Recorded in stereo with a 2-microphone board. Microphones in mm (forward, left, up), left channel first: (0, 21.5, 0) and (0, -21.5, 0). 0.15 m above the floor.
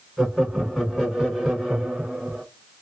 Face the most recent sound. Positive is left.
turn(degrees=-10)  # may be behind; listen again after turning